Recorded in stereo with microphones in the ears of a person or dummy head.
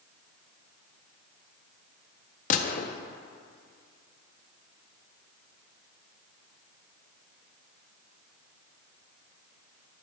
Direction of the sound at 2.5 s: 45° left (ahead or behind).